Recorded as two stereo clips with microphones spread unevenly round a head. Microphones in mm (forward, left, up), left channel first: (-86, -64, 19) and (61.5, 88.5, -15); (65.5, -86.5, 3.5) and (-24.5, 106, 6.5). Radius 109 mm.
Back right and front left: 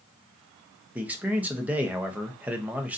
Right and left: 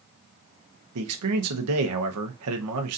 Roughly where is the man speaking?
Behind left.